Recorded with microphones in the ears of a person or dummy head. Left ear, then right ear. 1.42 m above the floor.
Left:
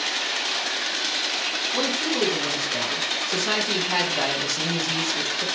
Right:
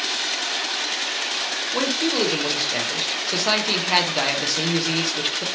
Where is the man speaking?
45° right (ahead or behind), 0.9 m.